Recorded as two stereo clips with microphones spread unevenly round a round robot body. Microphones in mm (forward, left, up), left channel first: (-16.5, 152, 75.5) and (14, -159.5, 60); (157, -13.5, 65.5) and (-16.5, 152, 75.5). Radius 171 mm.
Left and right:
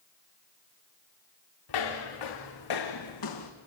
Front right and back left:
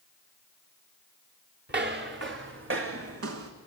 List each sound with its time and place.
1.7 s footsteps: 90° left, 3 m; by 3.5 s 120° left, 2 m